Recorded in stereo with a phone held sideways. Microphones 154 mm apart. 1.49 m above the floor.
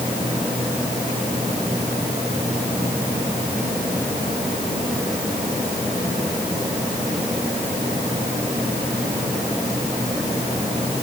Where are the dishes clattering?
No dishes clattering in this recording.